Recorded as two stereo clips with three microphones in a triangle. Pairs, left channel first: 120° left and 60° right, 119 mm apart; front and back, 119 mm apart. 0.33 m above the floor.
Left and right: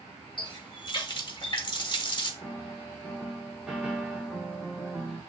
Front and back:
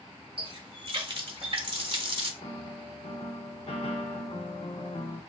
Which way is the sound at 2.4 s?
25° left.